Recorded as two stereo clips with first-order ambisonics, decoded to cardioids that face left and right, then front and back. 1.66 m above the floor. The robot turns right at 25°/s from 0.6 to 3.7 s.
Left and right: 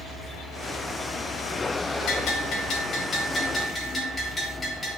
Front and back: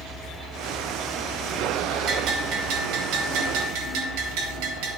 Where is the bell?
130° left, 3.5 m; by 5.0 s 170° left, 3.5 m.